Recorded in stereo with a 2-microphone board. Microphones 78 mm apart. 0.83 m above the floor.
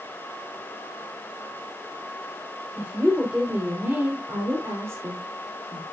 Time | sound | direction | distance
2.8 | a woman speaking | 15° right (ahead or behind) | 3.5 m